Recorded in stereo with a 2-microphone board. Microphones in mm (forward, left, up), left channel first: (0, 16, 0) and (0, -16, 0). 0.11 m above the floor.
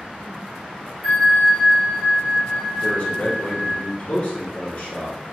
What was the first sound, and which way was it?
A bell, 5° right (ahead or behind).